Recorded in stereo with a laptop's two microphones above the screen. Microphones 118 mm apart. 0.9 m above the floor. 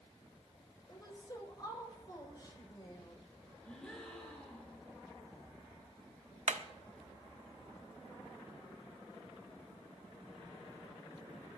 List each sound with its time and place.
0.9 s a woman speaking: 35° left (ahead or behind), 4 m
3.6 s a gasp: 10° left (ahead or behind), 3 m
6.5 s hammering: 85° right, 0.9 m